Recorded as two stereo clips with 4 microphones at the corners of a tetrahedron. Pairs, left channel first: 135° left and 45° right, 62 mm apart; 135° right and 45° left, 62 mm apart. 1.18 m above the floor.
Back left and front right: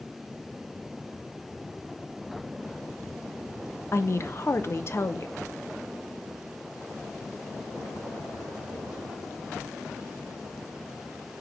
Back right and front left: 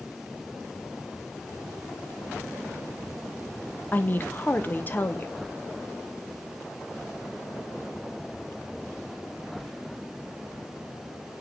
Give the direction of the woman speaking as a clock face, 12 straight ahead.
6 o'clock.